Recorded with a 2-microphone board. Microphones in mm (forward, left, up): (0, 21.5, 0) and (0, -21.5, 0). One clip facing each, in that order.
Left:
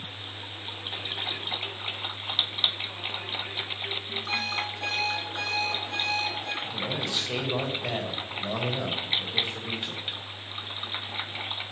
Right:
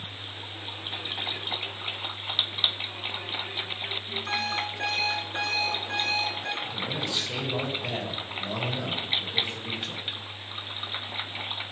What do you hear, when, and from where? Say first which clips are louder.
4.3 s an alarm clock: right 1 dB; 75° right (ahead or behind), 3 m
6.6 s a man speaking: even; 20° left (ahead or behind), 1.5 m